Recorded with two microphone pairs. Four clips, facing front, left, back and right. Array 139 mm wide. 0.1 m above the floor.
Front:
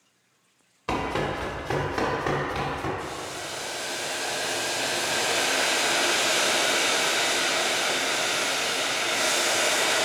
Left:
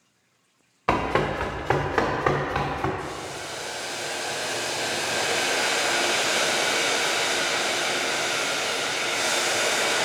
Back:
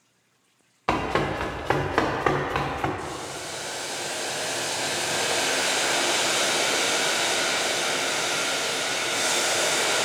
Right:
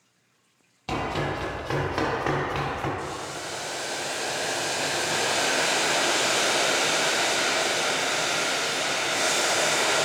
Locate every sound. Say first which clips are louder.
0.9 s running footsteps: left 5 dB, back 3 dB; 135° left, 1.0 m; by 2.9 s 170° left, 1.8 m
3.0 s boiling: even, back 1 dB; 75° right, 1.9 m